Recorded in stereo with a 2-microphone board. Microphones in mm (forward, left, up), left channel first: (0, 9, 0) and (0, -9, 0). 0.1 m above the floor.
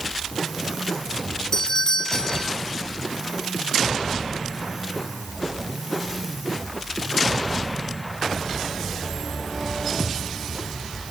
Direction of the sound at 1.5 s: 25° left (ahead or behind).